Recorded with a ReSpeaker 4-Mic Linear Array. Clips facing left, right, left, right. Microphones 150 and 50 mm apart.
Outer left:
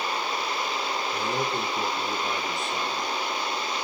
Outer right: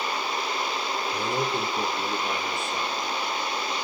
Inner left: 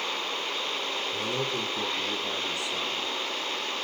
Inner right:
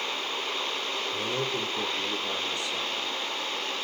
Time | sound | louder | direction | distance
1.1 | a man speaking | outer right 2 dB, even | centre (ahead or behind) | 3 m